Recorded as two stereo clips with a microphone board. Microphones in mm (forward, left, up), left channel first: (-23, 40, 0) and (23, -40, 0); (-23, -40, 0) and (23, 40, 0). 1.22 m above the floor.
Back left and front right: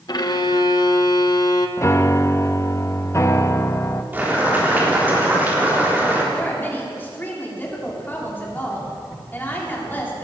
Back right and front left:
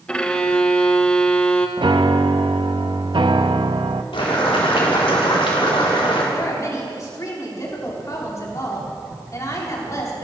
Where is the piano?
65° left, 0.7 m.